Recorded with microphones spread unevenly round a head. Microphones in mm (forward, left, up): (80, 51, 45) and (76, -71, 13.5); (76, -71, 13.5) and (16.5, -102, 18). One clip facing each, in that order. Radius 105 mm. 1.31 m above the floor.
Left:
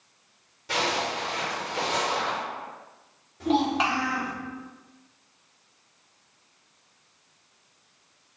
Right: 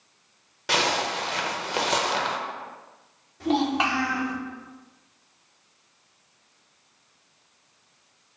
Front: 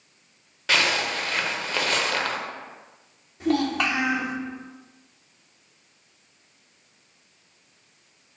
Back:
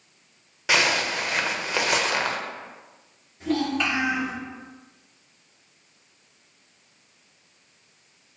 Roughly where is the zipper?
Right.